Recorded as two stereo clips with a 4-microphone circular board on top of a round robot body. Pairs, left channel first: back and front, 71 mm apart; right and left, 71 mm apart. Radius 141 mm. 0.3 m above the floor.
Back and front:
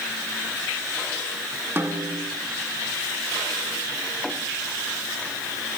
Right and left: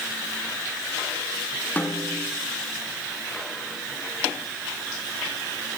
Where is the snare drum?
35° right, 1.6 m.